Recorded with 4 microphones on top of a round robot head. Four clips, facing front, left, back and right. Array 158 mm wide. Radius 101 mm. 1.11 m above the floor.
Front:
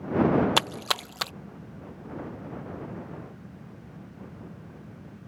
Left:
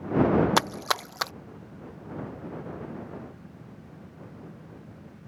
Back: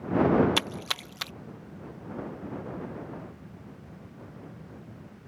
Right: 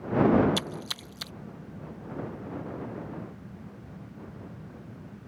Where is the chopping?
I don't hear chopping.